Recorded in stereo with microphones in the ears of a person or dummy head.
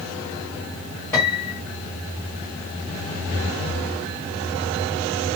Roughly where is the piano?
Centre.